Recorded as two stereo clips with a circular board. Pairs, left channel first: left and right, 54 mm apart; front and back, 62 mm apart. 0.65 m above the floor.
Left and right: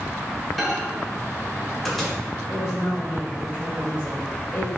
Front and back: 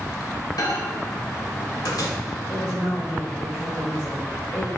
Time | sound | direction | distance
0.6 | a microwave | straight ahead | 1.8 m
2.5 | a woman speaking | 50° left | 2.5 m